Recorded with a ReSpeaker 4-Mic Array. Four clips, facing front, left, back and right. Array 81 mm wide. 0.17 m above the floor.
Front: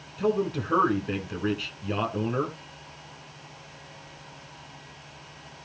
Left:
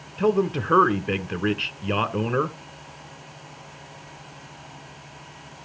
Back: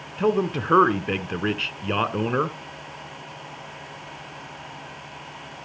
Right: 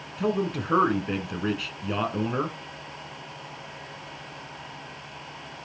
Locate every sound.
0.2 s a man speaking: 155° left, 1.5 m